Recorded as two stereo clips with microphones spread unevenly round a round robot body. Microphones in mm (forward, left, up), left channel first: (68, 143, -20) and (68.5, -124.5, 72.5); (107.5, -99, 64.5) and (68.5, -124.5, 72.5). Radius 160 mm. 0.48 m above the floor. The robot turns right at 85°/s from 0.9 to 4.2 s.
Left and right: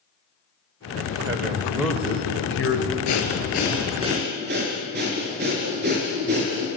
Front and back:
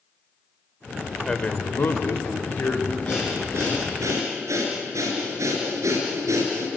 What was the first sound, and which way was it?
A man speaking, 40° right.